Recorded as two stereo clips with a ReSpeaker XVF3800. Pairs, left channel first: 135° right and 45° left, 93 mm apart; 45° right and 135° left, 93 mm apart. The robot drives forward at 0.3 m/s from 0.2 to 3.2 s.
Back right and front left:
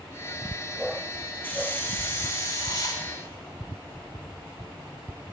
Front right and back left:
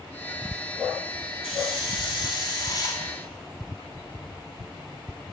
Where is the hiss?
65° right, 1.1 m; by 3.0 s 90° right, 1.0 m.